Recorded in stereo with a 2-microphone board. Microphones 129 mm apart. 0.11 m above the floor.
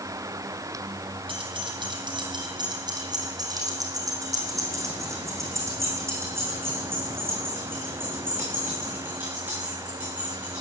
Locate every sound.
1.3 s keys jangling: 45° right (ahead or behind), 3 m; by 10.6 s 10° right (ahead or behind), 7.5 m